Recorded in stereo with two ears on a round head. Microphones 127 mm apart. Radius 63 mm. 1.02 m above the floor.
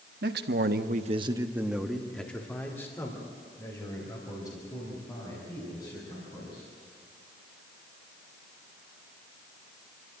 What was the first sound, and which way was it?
A man speaking, 75° right (ahead or behind).